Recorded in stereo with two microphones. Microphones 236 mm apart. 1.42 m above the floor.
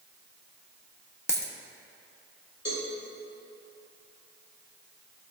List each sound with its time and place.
1.3 s a dropped coin: 15° right (ahead or behind), 0.8 m
2.6 s a cowbell: 70° left (ahead or behind), 2.5 m